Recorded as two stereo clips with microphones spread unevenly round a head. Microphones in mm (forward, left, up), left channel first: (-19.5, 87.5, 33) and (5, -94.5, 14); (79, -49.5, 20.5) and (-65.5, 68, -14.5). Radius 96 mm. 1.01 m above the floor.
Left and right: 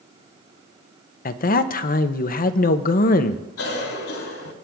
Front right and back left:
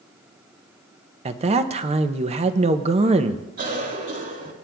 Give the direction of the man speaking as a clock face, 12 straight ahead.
8 o'clock.